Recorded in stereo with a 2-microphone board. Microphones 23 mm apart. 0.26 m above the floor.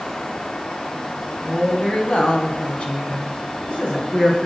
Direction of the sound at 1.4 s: 45° left (ahead or behind).